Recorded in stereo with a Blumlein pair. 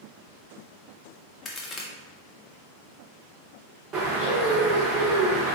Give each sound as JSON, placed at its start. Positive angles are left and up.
{"t": 1.4, "sound": "a crack", "azimuth_deg": 20, "distance_m": 0.8}
{"t": 3.9, "sound": "a bird", "azimuth_deg": -20, "distance_m": 1.4}